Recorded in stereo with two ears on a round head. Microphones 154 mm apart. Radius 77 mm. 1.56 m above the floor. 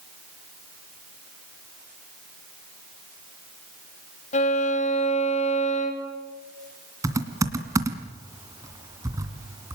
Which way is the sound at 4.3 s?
40° left (ahead or behind).